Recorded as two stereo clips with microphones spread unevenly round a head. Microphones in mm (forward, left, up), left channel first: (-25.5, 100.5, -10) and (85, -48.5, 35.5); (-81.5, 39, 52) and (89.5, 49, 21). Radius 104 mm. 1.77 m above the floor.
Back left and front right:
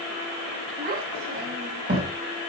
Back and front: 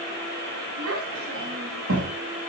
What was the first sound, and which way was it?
A child speaking, 30° right.